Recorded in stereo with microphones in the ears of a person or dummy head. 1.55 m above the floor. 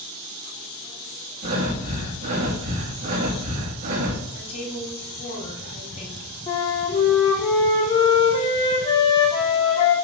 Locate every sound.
1.4 s breathing: 50° right (ahead or behind), 2 m
4.3 s a woman speaking: 40° left (ahead or behind), 4 m
6.5 s a flute: 25° left (ahead or behind), 3.5 m